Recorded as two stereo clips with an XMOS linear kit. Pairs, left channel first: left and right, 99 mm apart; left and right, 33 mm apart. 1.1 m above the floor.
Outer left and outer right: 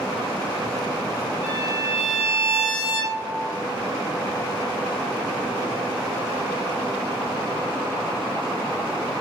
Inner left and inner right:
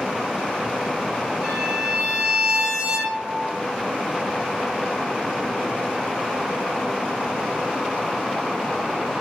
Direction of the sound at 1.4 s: 10° right (ahead or behind).